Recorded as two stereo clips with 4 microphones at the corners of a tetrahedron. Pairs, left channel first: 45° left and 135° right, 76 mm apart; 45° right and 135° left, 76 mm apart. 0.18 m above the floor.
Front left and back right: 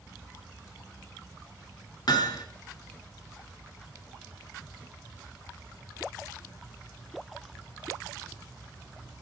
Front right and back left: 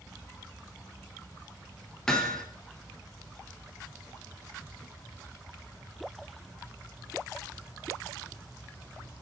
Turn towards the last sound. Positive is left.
turn(degrees=35)